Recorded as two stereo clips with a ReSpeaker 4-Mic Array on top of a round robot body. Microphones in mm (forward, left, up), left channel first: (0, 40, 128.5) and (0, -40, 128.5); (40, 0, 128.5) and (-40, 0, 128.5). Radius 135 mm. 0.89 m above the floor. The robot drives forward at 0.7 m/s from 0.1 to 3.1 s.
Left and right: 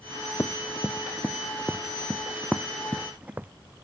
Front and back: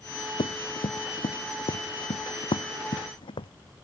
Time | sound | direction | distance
0.4 | running footsteps | 25° left | ?